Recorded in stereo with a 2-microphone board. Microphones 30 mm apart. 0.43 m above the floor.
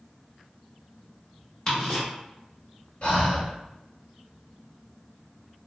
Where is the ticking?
25° left (ahead or behind), 1.3 m.